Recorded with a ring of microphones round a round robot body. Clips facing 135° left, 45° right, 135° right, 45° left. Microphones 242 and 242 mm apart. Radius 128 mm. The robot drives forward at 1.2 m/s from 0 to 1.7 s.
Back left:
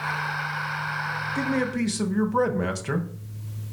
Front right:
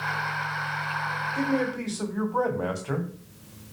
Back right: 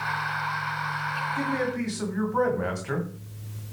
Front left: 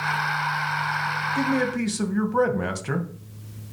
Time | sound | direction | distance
1.4 | a man speaking | 70° left | 2.5 m